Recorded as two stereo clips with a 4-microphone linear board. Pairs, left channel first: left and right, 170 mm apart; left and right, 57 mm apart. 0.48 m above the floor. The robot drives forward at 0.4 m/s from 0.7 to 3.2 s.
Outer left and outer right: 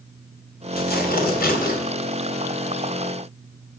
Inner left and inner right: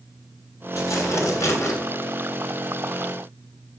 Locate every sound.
0.7 s tearing paper: 60° left (ahead or behind), 3 m; by 1.8 s 55° left (ahead or behind), 3 m